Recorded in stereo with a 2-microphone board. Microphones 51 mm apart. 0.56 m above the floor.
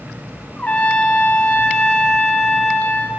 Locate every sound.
0.6 s a trumpet: 30° left (ahead or behind), 1.3 m